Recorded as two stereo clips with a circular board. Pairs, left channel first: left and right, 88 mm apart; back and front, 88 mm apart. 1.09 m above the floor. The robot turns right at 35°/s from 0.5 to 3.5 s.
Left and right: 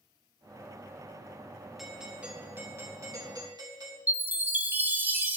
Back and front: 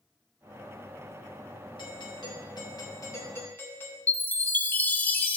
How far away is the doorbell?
About 2.5 m.